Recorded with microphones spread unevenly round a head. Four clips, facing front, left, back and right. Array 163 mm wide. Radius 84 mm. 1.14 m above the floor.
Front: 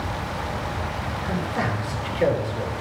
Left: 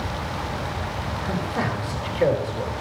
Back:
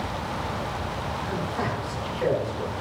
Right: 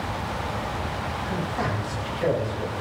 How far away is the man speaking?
About 8.5 m.